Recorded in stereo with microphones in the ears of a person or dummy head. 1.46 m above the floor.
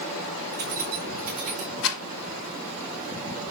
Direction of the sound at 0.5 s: 60° right (ahead or behind).